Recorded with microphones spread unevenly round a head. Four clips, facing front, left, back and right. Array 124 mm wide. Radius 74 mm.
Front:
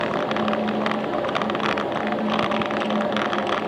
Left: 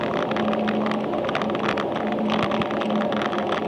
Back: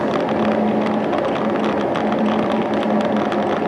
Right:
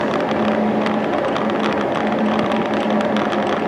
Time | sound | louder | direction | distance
0.0 | a fan | right 5 dB, back 5 dB | 125° right | 0.7 m